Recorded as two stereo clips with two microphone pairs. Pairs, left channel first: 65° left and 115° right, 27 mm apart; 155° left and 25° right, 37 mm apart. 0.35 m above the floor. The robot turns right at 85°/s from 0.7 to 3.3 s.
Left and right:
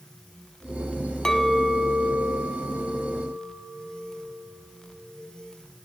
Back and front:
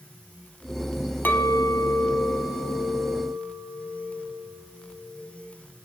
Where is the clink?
125° left, 1.6 m; by 5.2 s 60° right, 1.6 m.